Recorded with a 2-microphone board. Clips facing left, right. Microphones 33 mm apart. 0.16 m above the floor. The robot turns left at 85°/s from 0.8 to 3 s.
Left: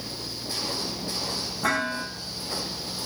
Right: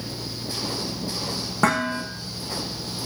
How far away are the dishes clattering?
About 7 m.